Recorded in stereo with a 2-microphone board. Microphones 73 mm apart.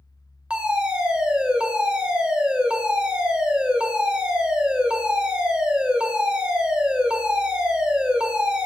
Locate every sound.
0.5 s a fire alarm: 10° right (ahead or behind), 1.9 m